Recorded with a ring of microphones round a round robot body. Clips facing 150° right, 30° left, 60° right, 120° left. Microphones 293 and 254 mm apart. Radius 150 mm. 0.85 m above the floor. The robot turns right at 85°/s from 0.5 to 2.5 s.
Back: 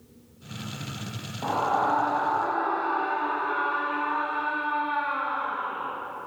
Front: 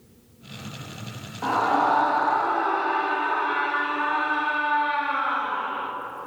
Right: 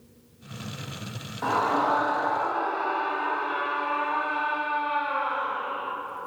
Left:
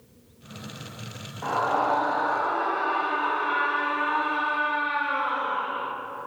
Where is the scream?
35° right, 1.8 m; by 5.9 s 60° left, 1.8 m.